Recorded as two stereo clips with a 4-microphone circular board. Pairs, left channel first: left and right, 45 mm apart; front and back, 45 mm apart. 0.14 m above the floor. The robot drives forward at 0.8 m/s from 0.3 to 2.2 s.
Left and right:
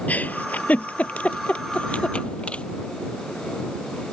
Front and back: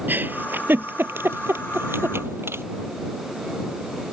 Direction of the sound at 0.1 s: 140° left.